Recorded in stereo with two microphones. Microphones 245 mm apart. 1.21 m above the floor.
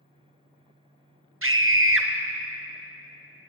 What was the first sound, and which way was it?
A scream, 55° right (ahead or behind).